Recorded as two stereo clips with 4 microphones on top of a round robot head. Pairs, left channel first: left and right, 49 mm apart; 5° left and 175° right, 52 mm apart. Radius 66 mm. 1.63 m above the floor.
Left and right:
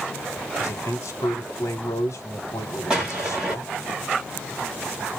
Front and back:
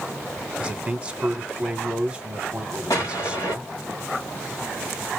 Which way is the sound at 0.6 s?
115° left.